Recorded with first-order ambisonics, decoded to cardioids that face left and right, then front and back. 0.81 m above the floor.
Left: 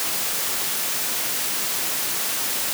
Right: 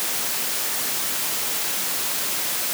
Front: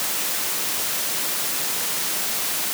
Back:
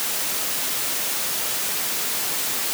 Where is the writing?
I don't hear writing.